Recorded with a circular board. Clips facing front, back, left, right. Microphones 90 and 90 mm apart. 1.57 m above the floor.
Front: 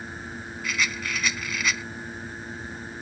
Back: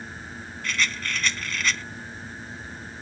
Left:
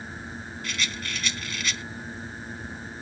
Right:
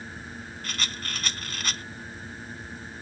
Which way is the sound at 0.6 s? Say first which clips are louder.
Back 1 dB, left 2 dB; 80° right.